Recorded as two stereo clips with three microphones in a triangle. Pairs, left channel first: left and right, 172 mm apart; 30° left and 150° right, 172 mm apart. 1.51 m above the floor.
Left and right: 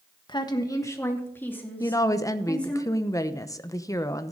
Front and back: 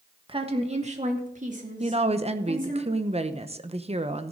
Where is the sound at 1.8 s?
160° left, 0.9 m.